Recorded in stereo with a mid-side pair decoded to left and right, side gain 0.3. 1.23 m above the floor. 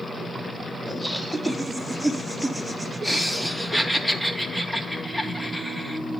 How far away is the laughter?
About 2 m.